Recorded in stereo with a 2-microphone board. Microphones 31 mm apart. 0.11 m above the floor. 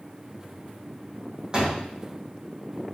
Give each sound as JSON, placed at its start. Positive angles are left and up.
{"t": 1.5, "sound": "a door slam", "side_deg": -25, "distance_m": 3.5}